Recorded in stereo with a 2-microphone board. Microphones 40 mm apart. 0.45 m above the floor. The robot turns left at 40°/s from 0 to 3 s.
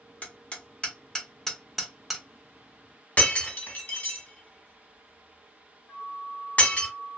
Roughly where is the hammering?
Left.